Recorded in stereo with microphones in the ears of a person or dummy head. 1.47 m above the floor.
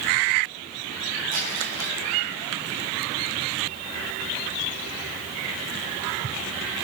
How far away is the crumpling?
About 9 m.